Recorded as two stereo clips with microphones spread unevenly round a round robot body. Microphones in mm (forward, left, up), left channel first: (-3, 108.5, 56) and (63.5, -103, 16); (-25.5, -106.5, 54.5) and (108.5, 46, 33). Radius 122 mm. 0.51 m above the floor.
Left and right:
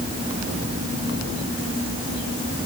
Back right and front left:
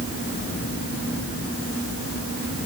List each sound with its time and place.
Only background noise.